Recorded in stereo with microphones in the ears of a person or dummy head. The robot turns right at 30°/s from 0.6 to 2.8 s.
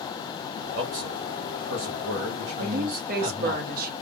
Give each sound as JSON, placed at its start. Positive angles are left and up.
{"t": 0.7, "sound": "a man speaking", "azimuth_deg": -120, "distance_m": 2.5}
{"t": 2.6, "sound": "a woman speaking", "side_deg": -60, "distance_m": 1.6}